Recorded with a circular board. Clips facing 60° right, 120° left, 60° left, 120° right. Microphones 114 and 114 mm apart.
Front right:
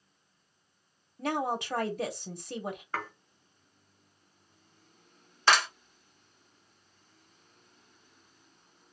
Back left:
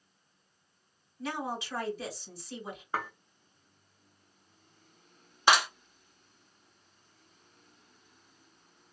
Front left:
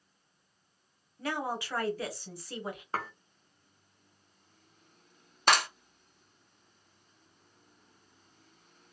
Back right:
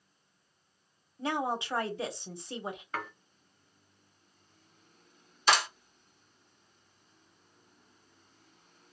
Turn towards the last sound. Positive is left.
turn(degrees=50)